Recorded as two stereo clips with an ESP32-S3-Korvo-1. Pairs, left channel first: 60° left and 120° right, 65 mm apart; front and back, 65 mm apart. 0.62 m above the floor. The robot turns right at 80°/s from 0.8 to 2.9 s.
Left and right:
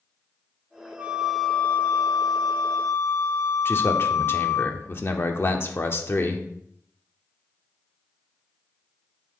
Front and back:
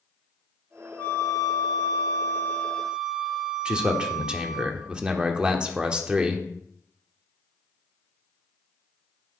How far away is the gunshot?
No gunshot in this recording.